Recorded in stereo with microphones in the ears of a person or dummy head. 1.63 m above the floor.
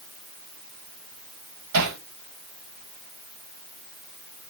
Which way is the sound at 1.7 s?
80° right.